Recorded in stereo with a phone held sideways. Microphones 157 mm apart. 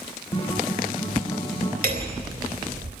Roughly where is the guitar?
Left.